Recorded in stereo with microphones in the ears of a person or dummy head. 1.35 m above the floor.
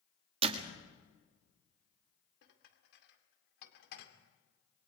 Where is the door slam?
35° right (ahead or behind), 1.6 m.